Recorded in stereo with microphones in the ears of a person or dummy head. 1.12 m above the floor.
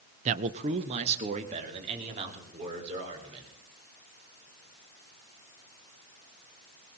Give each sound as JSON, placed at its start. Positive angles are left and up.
{"t": 0.2, "sound": "a man speaking", "side_deg": -40, "distance_m": 0.6}